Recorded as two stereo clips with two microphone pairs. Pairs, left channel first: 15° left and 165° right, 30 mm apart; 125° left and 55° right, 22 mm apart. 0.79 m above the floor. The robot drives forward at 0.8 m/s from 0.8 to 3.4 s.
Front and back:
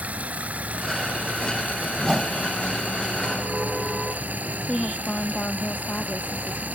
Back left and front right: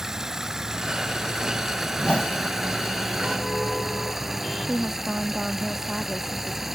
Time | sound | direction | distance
0.0 | running water | 125° right | ?
2.0 | a whoosh | 120° left | ?
4.7 | a woman speaking | 15° right | ?